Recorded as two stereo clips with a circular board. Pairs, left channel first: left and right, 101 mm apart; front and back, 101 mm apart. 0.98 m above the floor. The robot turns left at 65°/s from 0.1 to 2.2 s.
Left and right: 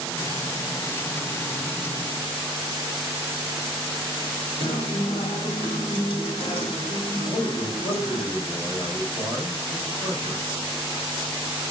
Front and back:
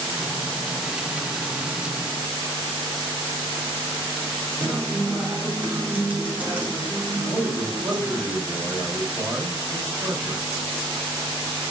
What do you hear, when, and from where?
4.6 s a guitar: 110° left, 4.5 m
7.2 s a man speaking: 100° left, 7 m